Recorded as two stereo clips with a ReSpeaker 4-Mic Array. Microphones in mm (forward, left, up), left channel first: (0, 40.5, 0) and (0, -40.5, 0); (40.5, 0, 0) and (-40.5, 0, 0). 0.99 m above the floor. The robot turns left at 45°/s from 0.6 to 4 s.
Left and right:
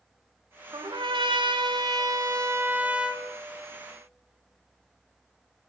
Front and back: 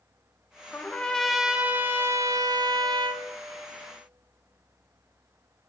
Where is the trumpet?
65° right, 0.5 m; by 3.2 s 175° right, 0.5 m.